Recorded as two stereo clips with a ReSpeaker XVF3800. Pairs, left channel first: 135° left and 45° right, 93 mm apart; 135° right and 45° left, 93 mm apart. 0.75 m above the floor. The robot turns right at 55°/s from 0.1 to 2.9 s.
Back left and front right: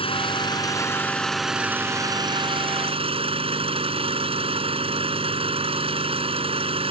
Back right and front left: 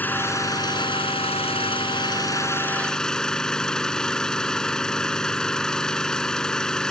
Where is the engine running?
155° left; by 6.9 s 50° right.